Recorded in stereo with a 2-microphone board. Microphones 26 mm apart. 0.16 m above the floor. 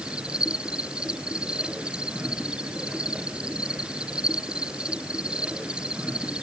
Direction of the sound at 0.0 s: 40° right (ahead or behind).